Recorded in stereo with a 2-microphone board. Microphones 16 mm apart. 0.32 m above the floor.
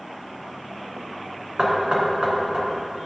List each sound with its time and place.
1.6 s knocking: 65° right (ahead or behind), 2.5 m